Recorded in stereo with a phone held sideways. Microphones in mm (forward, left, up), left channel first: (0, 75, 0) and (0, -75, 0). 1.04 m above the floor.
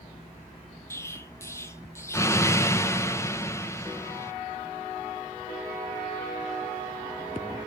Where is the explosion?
20° left (ahead or behind), 0.5 m.